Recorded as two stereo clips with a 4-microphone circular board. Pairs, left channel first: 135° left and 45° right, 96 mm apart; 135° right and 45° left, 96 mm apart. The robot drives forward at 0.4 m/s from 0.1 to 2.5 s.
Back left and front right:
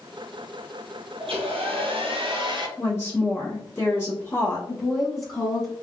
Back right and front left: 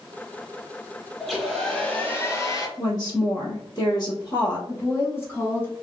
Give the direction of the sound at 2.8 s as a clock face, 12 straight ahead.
6 o'clock.